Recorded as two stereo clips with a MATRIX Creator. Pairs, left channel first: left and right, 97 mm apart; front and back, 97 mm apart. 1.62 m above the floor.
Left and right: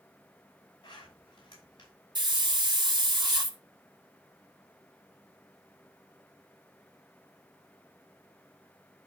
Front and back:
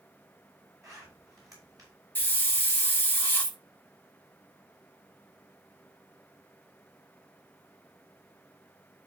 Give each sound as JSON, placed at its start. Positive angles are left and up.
{"t": 0.8, "sound": "a zipper", "azimuth_deg": 125, "distance_m": 5.5}
{"t": 2.1, "sound": "a hiss", "azimuth_deg": -65, "distance_m": 1.5}